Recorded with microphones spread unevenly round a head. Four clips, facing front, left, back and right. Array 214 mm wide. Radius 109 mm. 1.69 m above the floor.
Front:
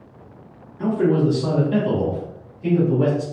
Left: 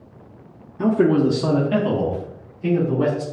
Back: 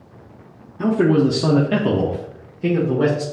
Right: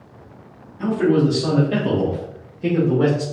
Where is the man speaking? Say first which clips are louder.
Left 1 dB, back 3 dB; 120° left, 0.7 m; by 3.2 s 140° right, 1.6 m.